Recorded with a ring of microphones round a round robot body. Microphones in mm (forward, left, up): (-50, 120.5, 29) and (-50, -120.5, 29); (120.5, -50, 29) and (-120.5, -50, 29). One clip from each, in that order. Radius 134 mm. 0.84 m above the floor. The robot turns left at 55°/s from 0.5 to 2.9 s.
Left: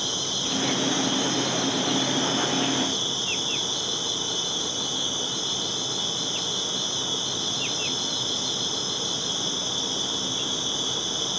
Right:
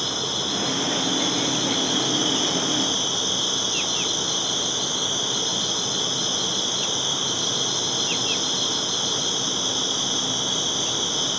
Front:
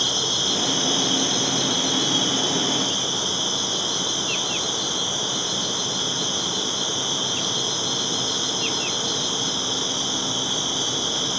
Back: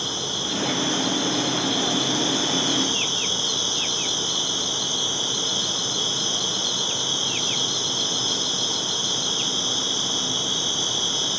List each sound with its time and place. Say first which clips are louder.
0.0 s an insect: right 2 dB, front 5 dB; 10° left, 2.5 m; by 11.4 s 120° right, 2.5 m